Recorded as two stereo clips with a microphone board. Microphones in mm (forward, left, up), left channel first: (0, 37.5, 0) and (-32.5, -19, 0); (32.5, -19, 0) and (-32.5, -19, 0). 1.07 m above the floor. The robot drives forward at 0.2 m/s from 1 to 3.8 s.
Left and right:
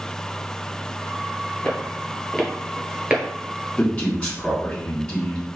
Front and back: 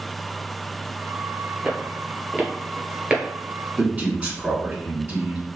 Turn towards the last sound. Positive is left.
turn(degrees=130)